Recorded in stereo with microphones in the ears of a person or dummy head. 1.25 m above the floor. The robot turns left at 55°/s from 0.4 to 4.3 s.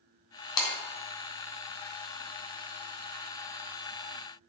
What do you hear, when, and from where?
0.6 s breaking glass: 20° left (ahead or behind), 3 m; by 0.8 s 10° left (ahead or behind), 3 m